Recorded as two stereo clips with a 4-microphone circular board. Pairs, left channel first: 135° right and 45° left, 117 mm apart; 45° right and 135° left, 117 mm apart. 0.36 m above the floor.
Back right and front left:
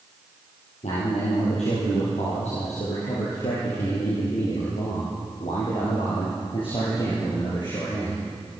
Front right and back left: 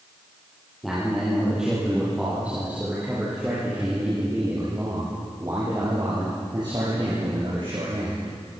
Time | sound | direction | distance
0.8 | a man speaking | 140° right | 9.5 m